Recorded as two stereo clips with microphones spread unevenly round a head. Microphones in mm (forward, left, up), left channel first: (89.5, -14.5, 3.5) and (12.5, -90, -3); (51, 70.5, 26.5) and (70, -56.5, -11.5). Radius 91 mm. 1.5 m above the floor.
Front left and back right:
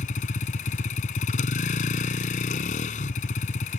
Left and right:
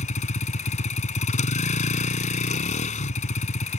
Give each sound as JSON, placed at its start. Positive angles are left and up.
{"t": 0.0, "sound": "a vehicle", "azimuth_deg": 75}